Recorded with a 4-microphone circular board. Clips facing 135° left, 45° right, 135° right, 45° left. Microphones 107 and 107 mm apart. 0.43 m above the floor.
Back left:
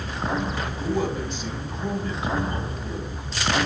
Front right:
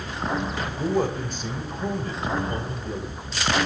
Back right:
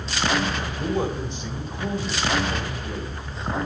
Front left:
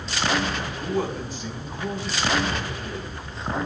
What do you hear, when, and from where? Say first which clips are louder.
0.8 s a man speaking: front right 2 dB, back right 2 dB; 75° right, 2.5 m